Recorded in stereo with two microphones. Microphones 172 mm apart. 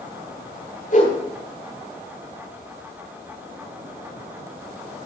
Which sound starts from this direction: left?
A whoosh, at 0.9 s.